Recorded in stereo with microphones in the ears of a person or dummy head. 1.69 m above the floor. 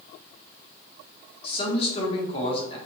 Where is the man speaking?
30° left (ahead or behind), 1.1 m.